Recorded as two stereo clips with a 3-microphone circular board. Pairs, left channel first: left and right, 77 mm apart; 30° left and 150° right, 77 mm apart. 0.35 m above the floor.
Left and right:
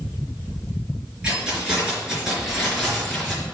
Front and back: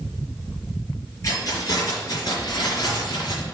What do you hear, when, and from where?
1.2 s keys jangling: 15° right, 4 m; by 3.4 s 5° left, 4 m